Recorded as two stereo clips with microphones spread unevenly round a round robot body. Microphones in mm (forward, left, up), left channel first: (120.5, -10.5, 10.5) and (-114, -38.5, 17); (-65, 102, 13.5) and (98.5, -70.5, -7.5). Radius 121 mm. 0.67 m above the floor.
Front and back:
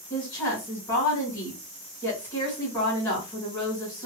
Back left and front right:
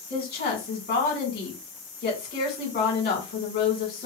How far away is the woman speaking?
About 2.0 m.